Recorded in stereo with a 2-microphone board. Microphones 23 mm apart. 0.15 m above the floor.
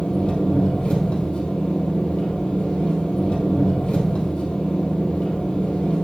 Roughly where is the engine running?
Left.